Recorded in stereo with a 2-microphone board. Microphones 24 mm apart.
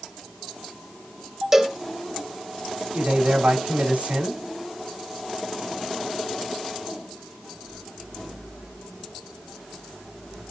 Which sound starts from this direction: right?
A man speaking, at 2.9 s.